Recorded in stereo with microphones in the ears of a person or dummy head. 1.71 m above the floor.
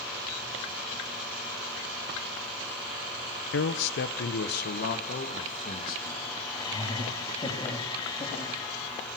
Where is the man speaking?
70° left (ahead or behind), 1.0 m; by 6.3 s 50° left (ahead or behind), 3 m.